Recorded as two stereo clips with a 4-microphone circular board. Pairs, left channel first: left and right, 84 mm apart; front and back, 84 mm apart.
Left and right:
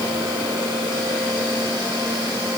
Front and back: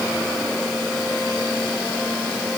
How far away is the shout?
I don't hear a shout.